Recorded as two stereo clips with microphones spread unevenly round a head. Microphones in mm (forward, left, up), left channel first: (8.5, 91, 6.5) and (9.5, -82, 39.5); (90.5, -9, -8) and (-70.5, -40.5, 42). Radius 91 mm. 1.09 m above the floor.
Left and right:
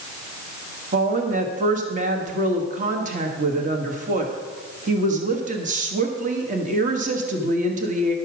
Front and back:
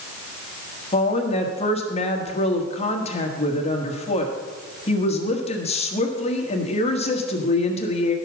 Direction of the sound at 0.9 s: 40° right.